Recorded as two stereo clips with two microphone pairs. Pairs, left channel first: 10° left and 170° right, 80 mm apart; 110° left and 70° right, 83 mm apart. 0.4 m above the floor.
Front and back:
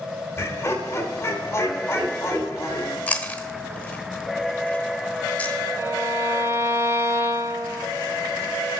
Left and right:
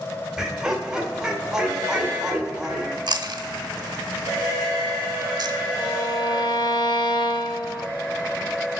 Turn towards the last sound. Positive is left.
turn(degrees=135)